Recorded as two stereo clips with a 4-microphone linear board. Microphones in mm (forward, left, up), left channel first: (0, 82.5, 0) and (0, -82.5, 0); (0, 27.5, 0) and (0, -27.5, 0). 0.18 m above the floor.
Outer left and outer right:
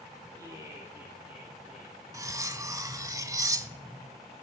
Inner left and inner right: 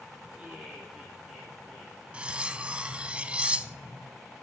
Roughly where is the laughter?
Right.